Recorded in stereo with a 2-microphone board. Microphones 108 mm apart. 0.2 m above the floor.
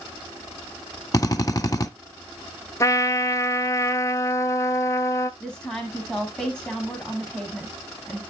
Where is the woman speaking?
10° left (ahead or behind), 1.2 m.